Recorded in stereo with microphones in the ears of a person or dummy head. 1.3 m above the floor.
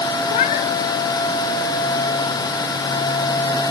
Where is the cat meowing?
40° left (ahead or behind), 1.1 m.